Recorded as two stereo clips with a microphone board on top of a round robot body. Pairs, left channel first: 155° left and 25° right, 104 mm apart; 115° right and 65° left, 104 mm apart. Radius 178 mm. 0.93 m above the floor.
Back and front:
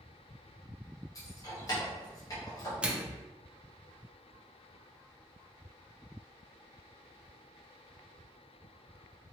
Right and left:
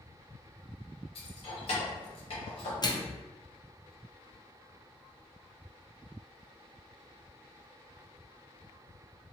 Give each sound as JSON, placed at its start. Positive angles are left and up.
{"t": 1.1, "sound": "keys jangling", "azimuth_deg": -145, "distance_m": 0.9}
{"t": 2.8, "sound": "a microwave", "azimuth_deg": -95, "distance_m": 0.7}